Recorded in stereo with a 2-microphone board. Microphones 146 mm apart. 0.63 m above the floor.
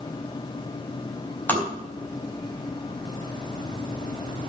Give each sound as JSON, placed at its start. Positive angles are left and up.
{"t": 1.5, "sound": "tapping", "side_deg": 15, "distance_m": 4.5}